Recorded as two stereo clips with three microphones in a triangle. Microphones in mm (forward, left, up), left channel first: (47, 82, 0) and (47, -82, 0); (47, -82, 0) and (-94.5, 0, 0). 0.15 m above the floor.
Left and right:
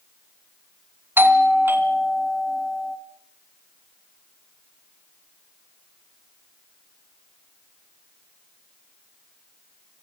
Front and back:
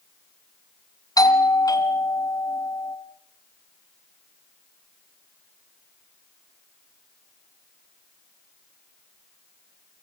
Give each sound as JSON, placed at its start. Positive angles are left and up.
{"t": 1.2, "sound": "a doorbell", "azimuth_deg": -35, "distance_m": 2.0}